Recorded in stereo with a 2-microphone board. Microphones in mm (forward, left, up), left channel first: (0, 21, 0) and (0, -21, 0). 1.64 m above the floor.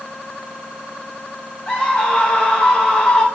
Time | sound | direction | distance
1.7 | a scream | 25° left (ahead or behind) | 1.2 m